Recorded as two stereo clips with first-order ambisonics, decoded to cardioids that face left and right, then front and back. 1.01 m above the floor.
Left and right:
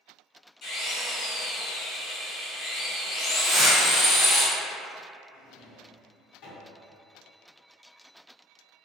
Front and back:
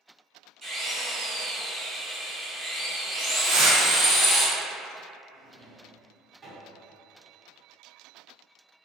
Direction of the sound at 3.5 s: 165° right.